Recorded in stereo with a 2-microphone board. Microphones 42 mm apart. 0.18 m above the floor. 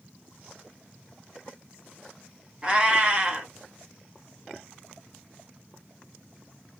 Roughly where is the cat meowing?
Right.